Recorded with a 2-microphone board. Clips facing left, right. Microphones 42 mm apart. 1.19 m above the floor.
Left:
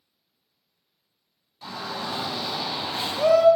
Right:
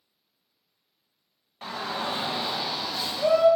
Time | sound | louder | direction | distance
1.6 | a shout | right 2 dB | 45° right (ahead or behind) | 1.0 m